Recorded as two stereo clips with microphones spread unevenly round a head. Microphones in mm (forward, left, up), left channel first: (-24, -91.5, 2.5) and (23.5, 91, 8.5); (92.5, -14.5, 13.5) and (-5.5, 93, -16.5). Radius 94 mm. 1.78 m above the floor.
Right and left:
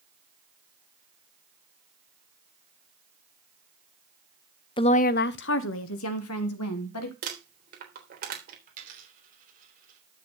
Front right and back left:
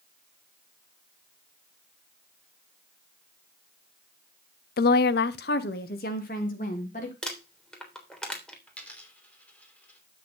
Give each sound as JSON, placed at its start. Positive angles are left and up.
{"t": 4.8, "sound": "a woman speaking", "azimuth_deg": -40, "distance_m": 0.7}
{"t": 7.2, "sound": "crumpling", "azimuth_deg": 35, "distance_m": 3.5}
{"t": 8.7, "sound": "a dropped coin", "azimuth_deg": 30, "distance_m": 3.0}